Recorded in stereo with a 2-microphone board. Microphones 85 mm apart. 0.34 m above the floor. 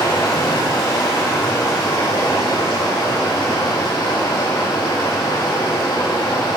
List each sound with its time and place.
0.0 s running water: 80° left, 4.5 m